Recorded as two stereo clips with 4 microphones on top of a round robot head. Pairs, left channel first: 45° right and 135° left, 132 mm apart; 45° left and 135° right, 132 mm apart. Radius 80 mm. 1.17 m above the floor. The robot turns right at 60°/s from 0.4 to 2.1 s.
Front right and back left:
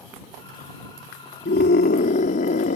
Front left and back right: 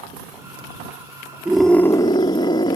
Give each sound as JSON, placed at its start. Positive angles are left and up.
{"t": 1.4, "sound": "a scream", "azimuth_deg": -55}